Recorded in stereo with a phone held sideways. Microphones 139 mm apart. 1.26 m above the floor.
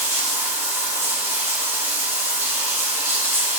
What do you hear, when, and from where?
0.0 s running water: 20° right (ahead or behind), 3 m